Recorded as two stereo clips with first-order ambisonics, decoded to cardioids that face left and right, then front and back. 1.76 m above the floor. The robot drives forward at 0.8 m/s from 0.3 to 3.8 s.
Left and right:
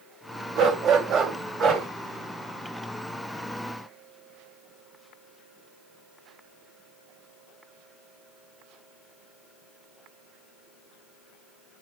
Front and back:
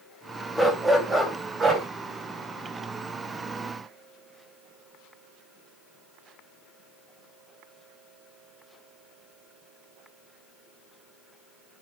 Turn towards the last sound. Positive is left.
turn(degrees=-155)